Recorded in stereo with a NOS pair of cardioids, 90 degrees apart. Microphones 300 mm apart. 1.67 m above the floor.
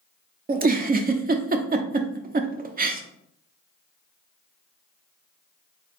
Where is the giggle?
30° right, 0.6 m.